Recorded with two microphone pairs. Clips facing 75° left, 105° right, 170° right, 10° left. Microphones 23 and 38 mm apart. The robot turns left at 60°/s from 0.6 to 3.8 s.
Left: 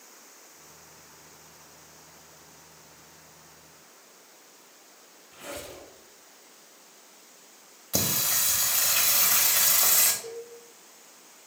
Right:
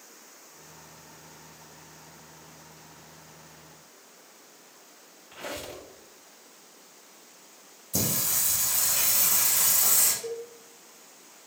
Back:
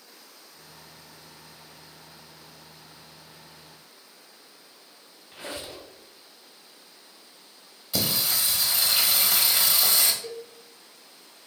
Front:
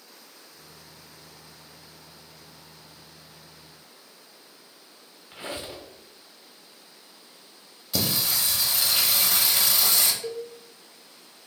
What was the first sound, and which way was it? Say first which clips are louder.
A squeak: right 3 dB, front 2 dB; 55° right.